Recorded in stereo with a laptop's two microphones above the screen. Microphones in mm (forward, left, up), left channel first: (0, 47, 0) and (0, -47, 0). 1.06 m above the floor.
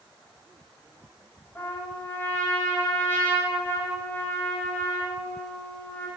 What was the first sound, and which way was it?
A trumpet, 25° left (ahead or behind).